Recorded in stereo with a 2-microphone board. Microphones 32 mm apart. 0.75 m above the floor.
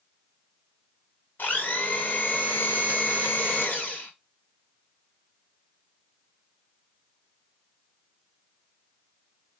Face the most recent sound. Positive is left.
turn(degrees=75)  # may be behind; listen again after turning